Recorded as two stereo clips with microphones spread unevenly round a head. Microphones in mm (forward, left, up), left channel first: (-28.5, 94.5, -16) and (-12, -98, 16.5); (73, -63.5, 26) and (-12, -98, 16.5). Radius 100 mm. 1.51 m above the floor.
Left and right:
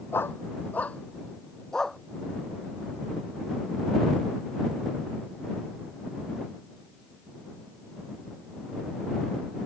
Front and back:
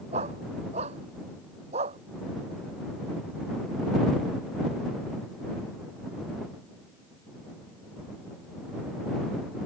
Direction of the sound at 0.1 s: 175° left.